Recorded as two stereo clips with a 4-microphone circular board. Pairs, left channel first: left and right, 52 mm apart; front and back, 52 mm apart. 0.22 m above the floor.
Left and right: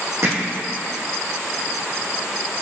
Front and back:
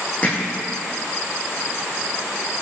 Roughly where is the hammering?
Ahead right.